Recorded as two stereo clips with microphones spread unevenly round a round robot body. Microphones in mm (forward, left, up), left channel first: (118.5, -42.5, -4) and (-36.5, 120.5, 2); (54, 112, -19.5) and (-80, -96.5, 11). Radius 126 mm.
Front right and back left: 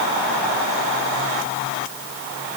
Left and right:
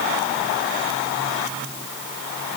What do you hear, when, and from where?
Only background noise.